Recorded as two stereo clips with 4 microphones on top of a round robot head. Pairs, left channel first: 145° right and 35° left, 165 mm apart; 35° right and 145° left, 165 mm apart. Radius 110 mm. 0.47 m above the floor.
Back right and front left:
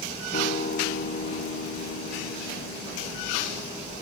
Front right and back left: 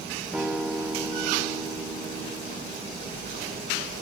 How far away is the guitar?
About 1.0 m.